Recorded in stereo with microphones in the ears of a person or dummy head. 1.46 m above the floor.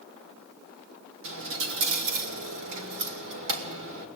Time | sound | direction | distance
1.2 | a dropped coin | 70° right (ahead or behind) | 2 m